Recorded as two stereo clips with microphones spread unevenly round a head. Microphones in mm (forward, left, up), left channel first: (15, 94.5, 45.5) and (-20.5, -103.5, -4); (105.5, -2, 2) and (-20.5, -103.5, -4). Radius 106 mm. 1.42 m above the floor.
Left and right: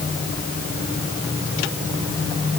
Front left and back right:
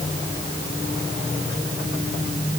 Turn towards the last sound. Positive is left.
No sound to turn to.